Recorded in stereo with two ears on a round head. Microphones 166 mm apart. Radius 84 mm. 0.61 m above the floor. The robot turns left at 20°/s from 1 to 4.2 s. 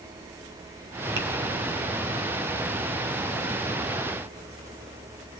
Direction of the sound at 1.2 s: 60° right (ahead or behind).